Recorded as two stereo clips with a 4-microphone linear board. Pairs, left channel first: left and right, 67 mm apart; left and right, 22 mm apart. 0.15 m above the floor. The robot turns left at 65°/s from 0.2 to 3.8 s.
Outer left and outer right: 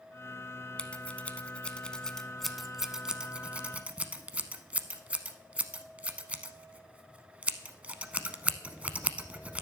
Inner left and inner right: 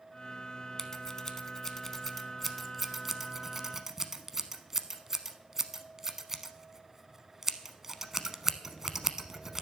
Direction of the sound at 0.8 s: 20° left (ahead or behind).